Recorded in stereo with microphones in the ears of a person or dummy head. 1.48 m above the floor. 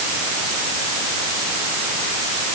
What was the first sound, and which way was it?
Only background noise.